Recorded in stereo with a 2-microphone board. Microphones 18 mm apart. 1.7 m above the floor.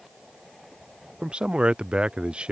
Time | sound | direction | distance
1.2 | a man speaking | 85° right | ?